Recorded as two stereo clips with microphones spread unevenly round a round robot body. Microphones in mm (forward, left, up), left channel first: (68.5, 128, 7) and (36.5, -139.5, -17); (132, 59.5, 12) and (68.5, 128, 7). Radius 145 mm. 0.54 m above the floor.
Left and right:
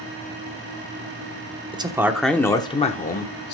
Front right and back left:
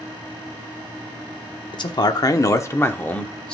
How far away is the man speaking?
About 0.9 m.